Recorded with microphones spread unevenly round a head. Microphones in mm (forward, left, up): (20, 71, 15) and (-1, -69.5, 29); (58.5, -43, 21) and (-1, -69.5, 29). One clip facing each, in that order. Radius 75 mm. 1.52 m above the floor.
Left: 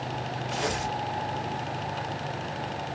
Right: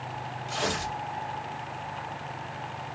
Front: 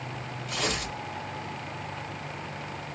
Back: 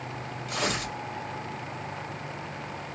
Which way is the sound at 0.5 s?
135° right.